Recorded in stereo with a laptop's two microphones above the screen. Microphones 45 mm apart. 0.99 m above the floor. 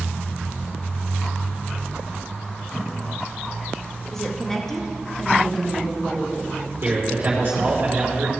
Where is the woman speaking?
10° left (ahead or behind), 1.6 m.